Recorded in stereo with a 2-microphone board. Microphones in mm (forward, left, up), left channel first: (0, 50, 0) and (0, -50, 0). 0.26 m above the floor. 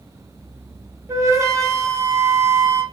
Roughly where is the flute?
Right.